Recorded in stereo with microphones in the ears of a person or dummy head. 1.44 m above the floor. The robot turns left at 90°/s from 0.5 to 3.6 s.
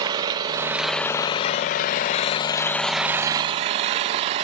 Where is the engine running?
145° right, 0.8 m; by 4.5 s 65° right, 0.8 m.